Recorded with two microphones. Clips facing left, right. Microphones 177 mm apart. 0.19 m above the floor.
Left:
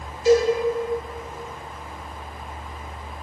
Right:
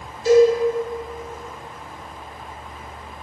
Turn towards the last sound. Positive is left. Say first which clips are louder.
# right 4 dB
turn(degrees=-40)  # may be behind; listen again after turning